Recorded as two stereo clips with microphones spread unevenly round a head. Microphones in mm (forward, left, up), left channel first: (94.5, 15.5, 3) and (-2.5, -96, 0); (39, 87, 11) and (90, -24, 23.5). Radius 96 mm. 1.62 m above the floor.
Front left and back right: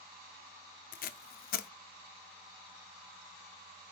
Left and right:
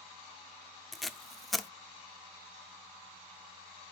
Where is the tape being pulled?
25° left, 0.5 m.